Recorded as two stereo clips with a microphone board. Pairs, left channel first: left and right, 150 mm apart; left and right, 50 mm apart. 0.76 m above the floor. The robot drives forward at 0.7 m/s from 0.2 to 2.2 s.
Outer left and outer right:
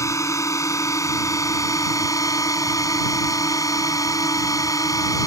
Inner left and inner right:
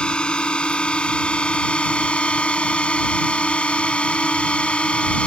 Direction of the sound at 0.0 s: 20° left (ahead or behind).